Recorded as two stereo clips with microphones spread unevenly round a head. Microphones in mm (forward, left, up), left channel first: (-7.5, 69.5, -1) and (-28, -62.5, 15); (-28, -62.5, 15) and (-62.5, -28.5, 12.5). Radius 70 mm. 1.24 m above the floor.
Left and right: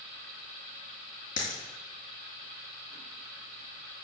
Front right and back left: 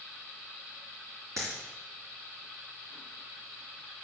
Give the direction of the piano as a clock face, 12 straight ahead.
I don't hear a piano.